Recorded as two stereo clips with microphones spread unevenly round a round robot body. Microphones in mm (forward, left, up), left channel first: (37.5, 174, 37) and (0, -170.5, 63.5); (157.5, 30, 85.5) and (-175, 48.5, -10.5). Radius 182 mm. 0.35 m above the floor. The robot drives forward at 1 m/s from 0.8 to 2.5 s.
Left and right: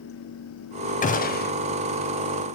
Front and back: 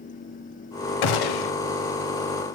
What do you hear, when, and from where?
1.0 s a gunshot: 15° left, 1.5 m; by 1.5 s 25° left, 1.0 m